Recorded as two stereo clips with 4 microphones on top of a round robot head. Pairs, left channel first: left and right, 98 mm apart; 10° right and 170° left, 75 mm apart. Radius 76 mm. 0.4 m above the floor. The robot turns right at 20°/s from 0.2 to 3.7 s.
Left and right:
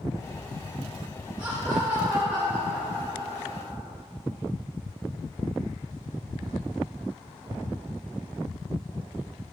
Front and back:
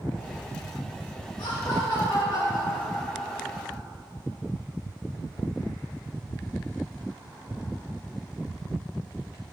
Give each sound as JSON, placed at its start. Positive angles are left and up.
{"t": 1.4, "sound": "laughter", "azimuth_deg": -35, "distance_m": 1.9}